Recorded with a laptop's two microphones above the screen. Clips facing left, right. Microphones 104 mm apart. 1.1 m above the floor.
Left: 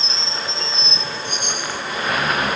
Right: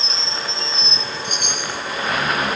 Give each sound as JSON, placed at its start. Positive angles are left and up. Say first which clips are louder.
{"t": 1.2, "sound": "a chime", "louder": "even", "side_deg": -75, "distance_m": 5.0}